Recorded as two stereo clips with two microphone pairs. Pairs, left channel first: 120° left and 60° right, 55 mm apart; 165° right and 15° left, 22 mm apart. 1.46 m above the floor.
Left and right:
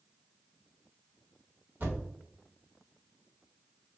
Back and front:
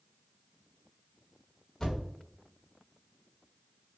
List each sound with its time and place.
1.8 s a thud: 105° right, 2.0 m